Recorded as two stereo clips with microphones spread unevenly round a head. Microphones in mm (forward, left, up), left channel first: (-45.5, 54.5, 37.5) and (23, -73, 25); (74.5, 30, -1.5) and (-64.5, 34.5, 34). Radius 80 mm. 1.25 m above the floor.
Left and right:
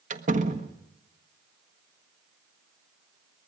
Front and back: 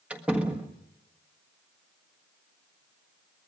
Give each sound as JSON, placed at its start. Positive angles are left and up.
{"t": 0.1, "sound": "a door slam", "azimuth_deg": -100, "distance_m": 1.5}